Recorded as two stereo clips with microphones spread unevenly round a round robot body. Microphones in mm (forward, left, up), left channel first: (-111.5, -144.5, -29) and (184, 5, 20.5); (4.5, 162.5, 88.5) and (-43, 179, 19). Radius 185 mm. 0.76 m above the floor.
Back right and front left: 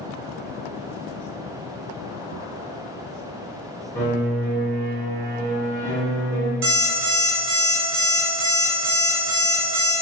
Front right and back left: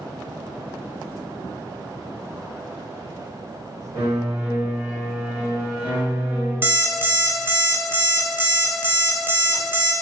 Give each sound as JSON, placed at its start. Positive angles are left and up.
{"t": 4.0, "sound": "a piano", "azimuth_deg": -80, "distance_m": 1.4}
{"t": 6.6, "sound": "an alarm clock", "azimuth_deg": 80, "distance_m": 0.7}